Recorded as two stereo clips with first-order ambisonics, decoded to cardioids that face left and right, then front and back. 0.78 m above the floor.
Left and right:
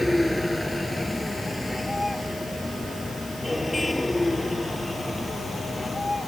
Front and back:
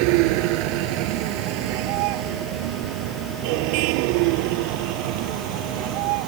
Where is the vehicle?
175° left; by 6.3 s 170° left.